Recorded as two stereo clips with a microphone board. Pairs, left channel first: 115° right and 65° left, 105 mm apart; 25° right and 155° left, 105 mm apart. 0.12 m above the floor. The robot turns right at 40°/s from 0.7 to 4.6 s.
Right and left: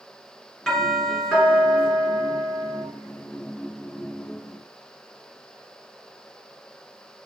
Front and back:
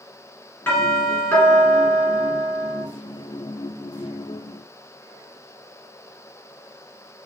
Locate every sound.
0.7 s a doorbell: 30° right, 1.9 m; by 2.8 s 55° left, 1.9 m